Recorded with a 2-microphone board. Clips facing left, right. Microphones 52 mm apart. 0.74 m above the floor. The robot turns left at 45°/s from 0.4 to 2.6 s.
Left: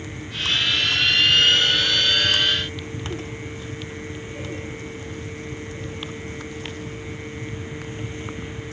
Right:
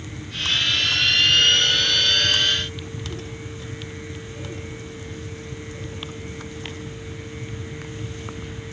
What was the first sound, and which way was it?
Only background noise.